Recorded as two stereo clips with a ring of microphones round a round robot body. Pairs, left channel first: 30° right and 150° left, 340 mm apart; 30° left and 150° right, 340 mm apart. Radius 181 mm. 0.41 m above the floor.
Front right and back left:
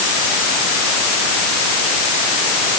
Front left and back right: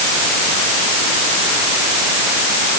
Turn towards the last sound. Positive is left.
No sound to turn to.